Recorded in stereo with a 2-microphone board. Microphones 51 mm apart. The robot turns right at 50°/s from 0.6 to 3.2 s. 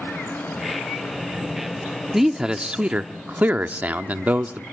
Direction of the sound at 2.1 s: 170° right.